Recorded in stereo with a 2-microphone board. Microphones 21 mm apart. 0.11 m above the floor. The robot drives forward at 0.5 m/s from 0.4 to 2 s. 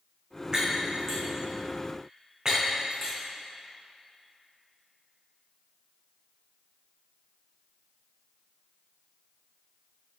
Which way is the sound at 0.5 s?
35° right (ahead or behind).